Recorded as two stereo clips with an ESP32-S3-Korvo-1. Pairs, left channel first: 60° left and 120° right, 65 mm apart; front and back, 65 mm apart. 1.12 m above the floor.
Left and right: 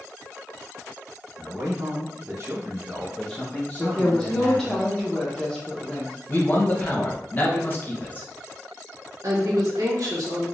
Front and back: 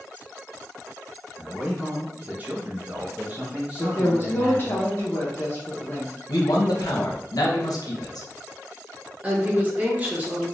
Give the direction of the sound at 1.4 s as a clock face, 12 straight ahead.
4 o'clock.